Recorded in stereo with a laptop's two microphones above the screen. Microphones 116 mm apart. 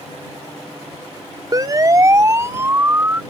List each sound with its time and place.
1.5 s a siren: 35° right (ahead or behind); by 3.2 s 20° right (ahead or behind)